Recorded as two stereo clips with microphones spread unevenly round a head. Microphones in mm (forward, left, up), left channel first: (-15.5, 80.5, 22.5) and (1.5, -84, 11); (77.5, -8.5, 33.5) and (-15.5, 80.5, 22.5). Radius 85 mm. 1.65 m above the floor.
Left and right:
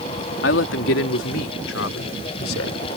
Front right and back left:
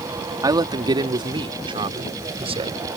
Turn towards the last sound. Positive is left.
turn(degrees=90)